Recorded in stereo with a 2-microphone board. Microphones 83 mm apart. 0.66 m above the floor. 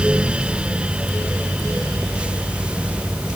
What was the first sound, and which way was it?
Only background noise.